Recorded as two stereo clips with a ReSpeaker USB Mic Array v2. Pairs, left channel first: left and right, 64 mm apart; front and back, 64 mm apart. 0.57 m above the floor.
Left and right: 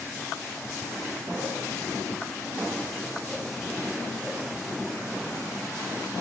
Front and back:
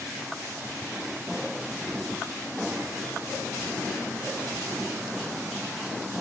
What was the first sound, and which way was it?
Only background noise.